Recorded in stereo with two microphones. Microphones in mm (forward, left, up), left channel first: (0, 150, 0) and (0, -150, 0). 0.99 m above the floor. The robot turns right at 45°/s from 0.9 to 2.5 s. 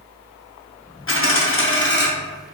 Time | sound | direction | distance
1.1 | a dropped coin | 85° left | 0.6 m